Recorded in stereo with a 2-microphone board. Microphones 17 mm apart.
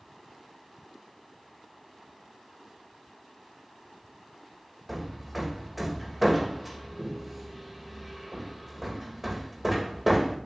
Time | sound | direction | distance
4.9 | hammering | 10° right (ahead or behind) | 1.8 m